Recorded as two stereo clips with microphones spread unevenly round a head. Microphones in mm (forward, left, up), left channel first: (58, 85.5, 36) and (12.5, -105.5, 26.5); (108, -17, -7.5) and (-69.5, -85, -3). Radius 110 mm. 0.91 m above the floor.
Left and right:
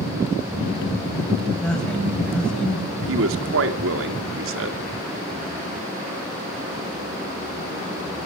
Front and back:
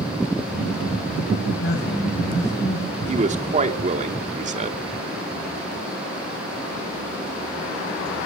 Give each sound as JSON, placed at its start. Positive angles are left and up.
{"t": 1.6, "sound": "a woman speaking", "azimuth_deg": -10, "distance_m": 6.5}
{"t": 3.0, "sound": "a man speaking", "azimuth_deg": -105, "distance_m": 2.5}